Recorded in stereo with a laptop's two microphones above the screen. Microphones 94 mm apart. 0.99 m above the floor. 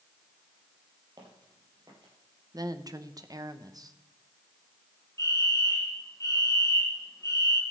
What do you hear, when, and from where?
1.2 s footsteps: 45° right (ahead or behind), 7 m
2.5 s a woman speaking: 40° right (ahead or behind), 0.9 m
5.2 s a fire alarm: 35° left (ahead or behind), 1.7 m